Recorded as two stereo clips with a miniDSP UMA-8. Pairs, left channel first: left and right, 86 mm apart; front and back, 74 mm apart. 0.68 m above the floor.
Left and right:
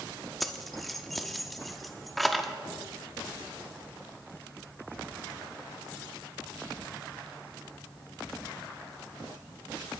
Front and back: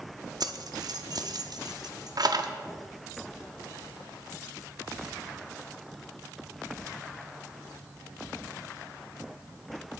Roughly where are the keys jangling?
Behind.